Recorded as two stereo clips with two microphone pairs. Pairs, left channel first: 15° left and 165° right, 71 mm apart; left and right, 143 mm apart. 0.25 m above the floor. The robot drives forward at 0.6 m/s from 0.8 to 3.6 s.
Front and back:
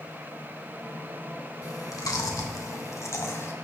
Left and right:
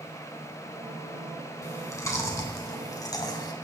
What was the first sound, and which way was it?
Chewing, 20° left.